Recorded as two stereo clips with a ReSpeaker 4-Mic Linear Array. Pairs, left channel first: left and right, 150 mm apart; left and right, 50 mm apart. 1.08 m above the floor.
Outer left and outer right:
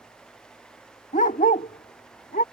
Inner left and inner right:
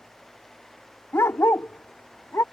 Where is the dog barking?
60° left (ahead or behind); by 2.4 s 75° left (ahead or behind).